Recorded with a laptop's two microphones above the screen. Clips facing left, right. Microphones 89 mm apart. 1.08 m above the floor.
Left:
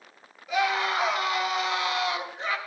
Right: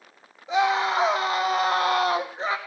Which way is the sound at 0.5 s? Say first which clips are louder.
Right 4 dB; 30° right (ahead or behind).